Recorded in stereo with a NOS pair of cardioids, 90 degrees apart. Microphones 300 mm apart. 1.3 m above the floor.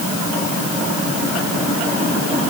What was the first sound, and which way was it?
Only background noise.